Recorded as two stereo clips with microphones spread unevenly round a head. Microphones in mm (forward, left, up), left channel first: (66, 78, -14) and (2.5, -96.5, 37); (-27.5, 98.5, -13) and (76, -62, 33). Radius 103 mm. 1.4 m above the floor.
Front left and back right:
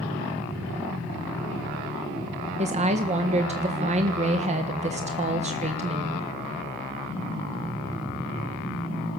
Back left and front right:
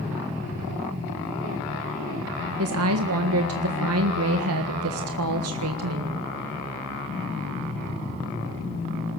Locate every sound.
2.6 s a woman speaking: 55° right, 1.6 m